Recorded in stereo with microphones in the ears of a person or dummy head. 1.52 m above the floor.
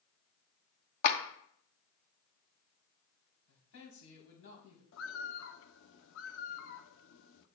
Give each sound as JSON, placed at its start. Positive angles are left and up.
{"t": 1.0, "sound": "a clap", "side_deg": 50, "distance_m": 1.1}
{"t": 3.5, "sound": "a man speaking", "side_deg": 85, "distance_m": 3.5}
{"t": 4.9, "sound": "a bird", "side_deg": 75, "distance_m": 0.7}